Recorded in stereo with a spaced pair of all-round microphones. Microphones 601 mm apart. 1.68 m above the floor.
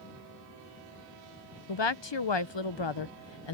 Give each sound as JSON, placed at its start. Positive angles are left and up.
{"t": 1.7, "sound": "a woman speaking", "side_deg": 45}